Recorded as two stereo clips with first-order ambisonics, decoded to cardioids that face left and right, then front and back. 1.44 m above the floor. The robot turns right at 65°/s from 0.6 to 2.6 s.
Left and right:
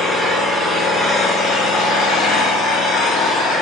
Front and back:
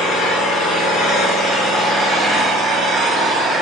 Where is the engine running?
5° right, 1.1 m; by 3.6 s 125° left, 1.1 m.